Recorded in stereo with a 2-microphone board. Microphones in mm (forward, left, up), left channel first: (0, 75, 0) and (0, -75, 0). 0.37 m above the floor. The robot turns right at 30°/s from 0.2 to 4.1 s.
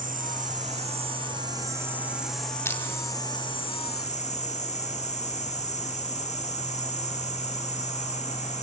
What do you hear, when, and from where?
0.0 s an insect: 65° right, 3 m; by 8.6 s 50° left, 3 m
2.6 s crushing: 20° left (ahead or behind), 2 m; by 2.8 s 25° left (ahead or behind), 2 m